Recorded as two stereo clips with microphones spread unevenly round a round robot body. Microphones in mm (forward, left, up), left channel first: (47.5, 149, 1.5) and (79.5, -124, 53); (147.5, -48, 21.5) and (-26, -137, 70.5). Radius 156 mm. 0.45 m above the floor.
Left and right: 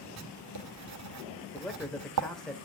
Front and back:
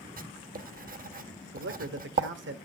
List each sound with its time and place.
0.2 s writing: 105° right, 1.4 m
1.5 s a man speaking: straight behind, 1.6 m